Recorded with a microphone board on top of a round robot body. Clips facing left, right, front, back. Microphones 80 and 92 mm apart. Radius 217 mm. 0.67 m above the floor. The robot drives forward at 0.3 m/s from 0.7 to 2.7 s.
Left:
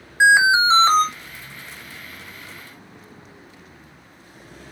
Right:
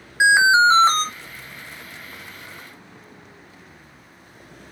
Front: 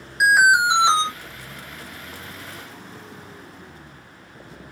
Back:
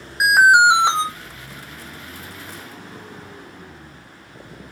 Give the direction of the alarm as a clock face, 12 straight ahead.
5 o'clock.